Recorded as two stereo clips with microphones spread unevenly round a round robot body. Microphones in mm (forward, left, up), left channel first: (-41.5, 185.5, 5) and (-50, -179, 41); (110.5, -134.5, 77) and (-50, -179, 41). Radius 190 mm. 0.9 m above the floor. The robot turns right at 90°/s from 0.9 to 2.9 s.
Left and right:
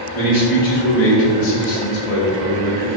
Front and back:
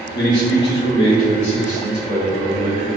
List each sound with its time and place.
0.1 s a man speaking: 25° left, 1.8 m; by 2.9 s 155° right, 1.8 m